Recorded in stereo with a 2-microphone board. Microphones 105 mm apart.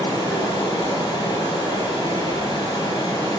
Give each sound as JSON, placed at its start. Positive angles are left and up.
{"t": 0.0, "sound": "running water", "side_deg": 40, "distance_m": 5.5}